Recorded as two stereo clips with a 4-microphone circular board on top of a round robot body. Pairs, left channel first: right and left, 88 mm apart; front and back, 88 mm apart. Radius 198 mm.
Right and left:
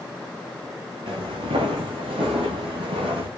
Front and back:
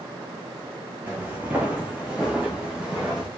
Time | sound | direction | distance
1.1 | footsteps | 110° left | 0.9 m